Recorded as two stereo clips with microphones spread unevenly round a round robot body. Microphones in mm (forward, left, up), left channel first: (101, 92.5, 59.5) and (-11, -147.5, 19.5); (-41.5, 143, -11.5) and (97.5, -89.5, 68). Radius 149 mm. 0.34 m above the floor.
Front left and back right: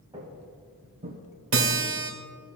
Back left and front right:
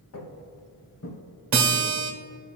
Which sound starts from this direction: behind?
Footsteps, at 0.1 s.